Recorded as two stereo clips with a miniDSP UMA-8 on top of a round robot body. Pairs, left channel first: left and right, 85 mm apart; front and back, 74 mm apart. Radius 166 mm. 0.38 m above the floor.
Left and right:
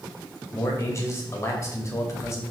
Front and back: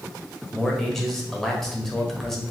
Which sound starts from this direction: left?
A man speaking, at 0.5 s.